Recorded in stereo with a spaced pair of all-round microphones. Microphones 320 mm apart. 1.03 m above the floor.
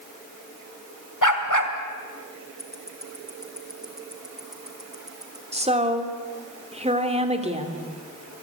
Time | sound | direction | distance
1.2 | a dog barking | 70° left (ahead or behind) | 2.5 m
2.6 | ticking | centre (ahead or behind) | 2.5 m
5.5 | a woman speaking | 20° right (ahead or behind) | 2.5 m